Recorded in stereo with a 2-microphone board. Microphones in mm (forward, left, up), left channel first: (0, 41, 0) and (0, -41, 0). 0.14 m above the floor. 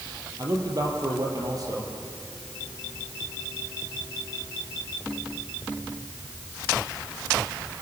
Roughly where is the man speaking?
Right.